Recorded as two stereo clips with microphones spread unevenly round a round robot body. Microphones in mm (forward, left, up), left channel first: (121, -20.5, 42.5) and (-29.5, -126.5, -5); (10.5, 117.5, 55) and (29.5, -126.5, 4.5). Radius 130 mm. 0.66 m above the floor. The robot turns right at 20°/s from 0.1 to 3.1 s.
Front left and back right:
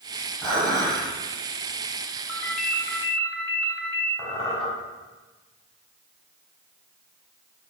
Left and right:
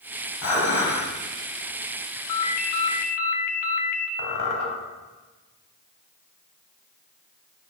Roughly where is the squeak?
Left.